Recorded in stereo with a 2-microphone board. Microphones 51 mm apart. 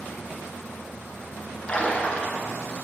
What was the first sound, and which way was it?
A splash, 25° left (ahead or behind).